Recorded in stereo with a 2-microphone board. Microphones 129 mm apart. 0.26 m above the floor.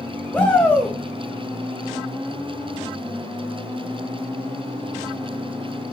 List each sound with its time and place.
0.3 s a shout: 10° left (ahead or behind), 1.0 m